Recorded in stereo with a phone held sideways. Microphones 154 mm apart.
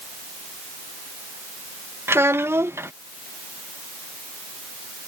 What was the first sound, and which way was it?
A child speaking, 15° right (ahead or behind).